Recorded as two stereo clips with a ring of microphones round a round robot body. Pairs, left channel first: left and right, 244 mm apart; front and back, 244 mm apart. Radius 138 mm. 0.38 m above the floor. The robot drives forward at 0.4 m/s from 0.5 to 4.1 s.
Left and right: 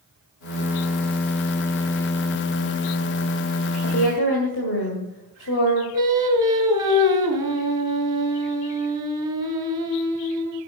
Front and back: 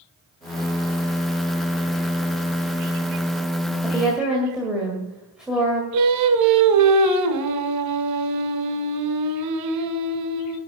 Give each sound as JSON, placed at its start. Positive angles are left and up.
{"t": 3.8, "sound": "a woman speaking", "azimuth_deg": 90, "distance_m": 2.0}
{"t": 5.9, "sound": "singing", "azimuth_deg": -165, "distance_m": 1.1}